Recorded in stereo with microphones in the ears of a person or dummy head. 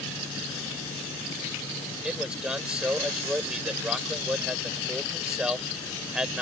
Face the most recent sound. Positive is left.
turn(degrees=-5)  # may be behind; listen again after turning